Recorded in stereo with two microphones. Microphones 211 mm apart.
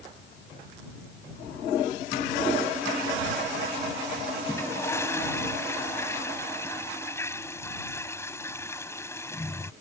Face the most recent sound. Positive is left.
turn(degrees=10)  # may be behind; listen again after turning